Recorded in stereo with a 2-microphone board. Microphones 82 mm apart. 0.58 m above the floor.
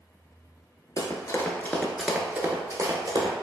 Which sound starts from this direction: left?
Running footsteps, at 1.0 s.